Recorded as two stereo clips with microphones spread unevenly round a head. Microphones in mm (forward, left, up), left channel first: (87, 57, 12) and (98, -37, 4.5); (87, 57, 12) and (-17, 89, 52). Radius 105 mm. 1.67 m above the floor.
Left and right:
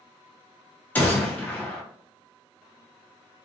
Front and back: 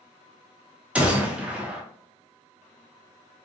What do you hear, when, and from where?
0.9 s a gunshot: 145° left, 0.7 m